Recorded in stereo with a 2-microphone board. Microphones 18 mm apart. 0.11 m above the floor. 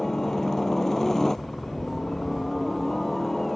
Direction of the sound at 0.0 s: 30° left (ahead or behind).